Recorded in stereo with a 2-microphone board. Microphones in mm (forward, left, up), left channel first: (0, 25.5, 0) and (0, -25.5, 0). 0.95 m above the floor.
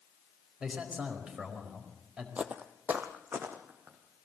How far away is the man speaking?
About 4.5 m.